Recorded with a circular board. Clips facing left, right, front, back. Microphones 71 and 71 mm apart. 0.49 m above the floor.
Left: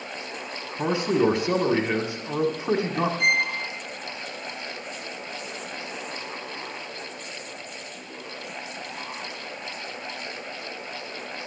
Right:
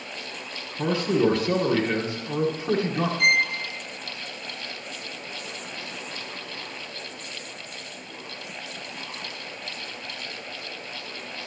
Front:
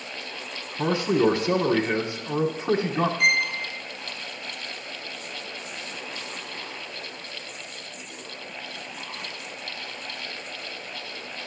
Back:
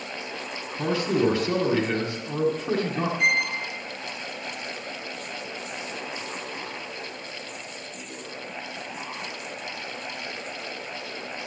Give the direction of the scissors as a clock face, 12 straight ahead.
I don't hear scissors.